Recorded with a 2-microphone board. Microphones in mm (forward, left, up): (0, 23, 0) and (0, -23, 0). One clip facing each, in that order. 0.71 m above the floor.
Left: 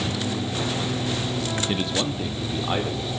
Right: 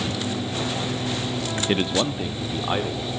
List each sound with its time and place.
1.7 s a man speaking: 30° right (ahead or behind), 0.6 m; by 3.1 s 5° right (ahead or behind), 2 m